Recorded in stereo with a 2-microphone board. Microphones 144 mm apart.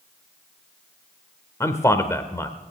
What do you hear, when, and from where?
1.6 s a man speaking: 20° left (ahead or behind), 0.9 m